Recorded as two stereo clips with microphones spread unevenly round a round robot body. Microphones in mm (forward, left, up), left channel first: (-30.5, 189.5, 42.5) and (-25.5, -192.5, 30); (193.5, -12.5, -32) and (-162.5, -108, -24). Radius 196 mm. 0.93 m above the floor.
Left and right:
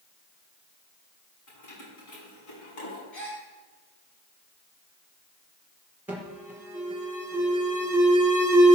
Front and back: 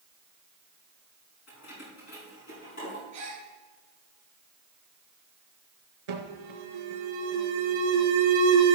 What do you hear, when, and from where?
1.5 s keys jangling: 70° left, 5.5 m; by 3.0 s 75° left, 6.5 m
3.1 s a gasp: 120° left, 5.5 m
6.1 s an alarm: 175° right, 2.5 m